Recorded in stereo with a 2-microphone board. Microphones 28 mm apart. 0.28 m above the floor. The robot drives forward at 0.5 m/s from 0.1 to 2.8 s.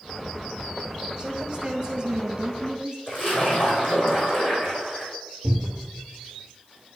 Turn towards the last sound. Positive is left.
turn(degrees=10)  # may be behind; listen again after turning